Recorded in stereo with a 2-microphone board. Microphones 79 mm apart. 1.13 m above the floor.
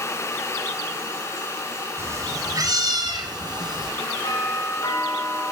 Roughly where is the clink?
I don't hear a clink.